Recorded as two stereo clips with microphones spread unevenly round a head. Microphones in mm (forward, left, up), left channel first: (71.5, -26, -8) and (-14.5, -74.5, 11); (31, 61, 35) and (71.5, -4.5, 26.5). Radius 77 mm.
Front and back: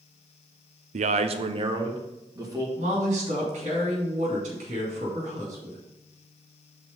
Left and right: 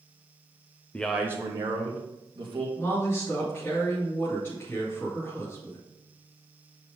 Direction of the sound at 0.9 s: 160° right.